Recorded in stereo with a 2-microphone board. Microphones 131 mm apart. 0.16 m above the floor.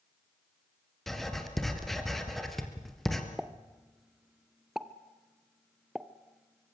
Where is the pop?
5° right (ahead or behind), 0.9 m.